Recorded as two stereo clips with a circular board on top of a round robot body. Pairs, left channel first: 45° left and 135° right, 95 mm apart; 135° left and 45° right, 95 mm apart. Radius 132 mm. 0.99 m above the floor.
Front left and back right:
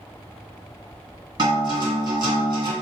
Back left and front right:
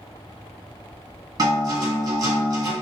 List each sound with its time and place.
1.4 s a guitar: 90° right, 1.7 m